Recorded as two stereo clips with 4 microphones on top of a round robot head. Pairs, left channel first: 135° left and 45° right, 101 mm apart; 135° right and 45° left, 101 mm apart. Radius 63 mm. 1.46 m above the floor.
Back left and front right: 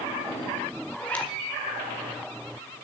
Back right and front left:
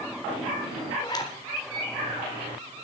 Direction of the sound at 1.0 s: 155° right.